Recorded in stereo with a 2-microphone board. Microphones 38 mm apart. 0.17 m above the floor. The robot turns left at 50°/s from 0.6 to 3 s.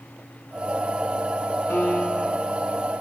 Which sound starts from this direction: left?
A piano, at 1.7 s.